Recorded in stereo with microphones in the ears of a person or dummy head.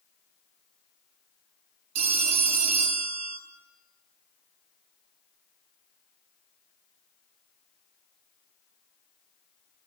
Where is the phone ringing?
35° right (ahead or behind), 1.0 m.